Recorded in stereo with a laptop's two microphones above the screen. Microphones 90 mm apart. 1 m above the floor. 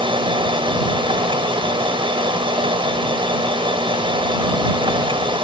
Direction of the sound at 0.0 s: 75° right (ahead or behind).